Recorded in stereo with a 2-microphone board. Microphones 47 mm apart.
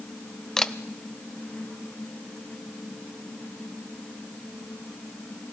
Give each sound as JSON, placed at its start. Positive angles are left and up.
{"t": 0.6, "sound": "a camera shutter", "side_deg": 10, "distance_m": 0.5}